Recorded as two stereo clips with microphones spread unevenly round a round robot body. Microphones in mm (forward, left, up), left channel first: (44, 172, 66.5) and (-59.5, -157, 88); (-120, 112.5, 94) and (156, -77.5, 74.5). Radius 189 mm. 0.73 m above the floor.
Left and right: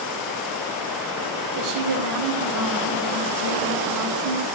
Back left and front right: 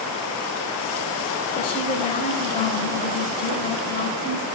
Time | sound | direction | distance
1.6 | a woman speaking | 145° right | 3 m